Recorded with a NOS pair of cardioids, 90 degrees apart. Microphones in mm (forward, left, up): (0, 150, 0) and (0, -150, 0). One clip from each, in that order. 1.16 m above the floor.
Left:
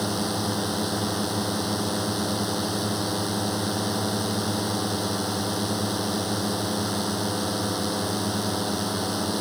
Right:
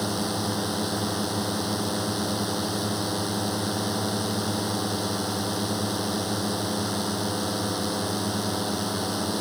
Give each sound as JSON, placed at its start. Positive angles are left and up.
{"t": 0.0, "sound": "a drone", "azimuth_deg": 5}